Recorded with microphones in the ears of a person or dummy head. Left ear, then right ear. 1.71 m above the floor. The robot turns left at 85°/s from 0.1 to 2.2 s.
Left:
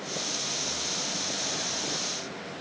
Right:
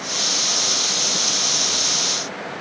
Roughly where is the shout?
No shout in this recording.